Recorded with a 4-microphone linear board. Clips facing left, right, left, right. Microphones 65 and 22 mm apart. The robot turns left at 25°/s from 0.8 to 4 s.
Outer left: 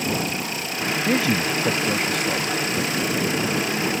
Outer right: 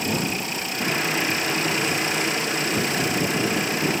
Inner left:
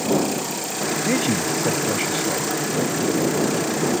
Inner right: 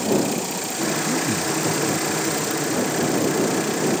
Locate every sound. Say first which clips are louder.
1.1 s a man speaking: outer left 3 dB, inner left 2 dB; 90° left; by 2.6 s 50° left